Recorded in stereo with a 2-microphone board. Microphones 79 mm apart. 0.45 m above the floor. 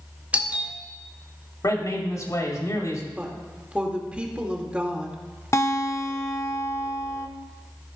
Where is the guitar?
40° left (ahead or behind), 0.7 m.